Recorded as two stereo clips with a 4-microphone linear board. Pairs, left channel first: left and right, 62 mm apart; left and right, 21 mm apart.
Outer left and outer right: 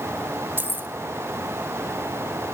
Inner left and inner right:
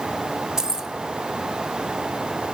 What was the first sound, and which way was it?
Keys jangling, 35° right (ahead or behind).